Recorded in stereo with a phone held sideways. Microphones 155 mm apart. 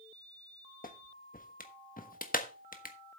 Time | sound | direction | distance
0.8 | a clap | 70° left (ahead or behind) | 1.3 m